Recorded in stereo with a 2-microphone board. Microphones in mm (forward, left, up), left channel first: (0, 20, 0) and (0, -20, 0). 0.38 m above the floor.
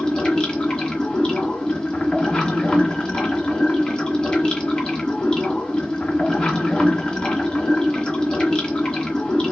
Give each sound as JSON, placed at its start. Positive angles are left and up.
{"t": 0.0, "sound": "running water", "side_deg": 25, "distance_m": 1.2}